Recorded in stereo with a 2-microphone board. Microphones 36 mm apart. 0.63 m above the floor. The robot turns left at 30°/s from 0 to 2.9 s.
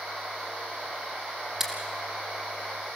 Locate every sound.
1.6 s scissors: 15° right (ahead or behind), 3.5 m; by 3.0 s 55° right (ahead or behind), 3.5 m